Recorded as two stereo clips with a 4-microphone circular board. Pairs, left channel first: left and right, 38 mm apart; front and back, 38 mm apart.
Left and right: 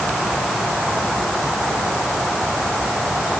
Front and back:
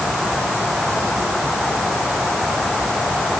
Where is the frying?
I don't hear frying.